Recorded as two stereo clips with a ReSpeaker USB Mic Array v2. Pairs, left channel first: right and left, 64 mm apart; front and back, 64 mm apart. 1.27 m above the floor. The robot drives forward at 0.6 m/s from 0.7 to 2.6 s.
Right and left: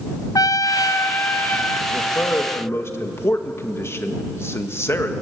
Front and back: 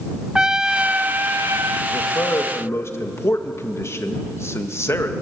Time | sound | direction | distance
0.3 | a trumpet | 105° right | 0.5 m
1.9 | a man speaking | 35° right | 2 m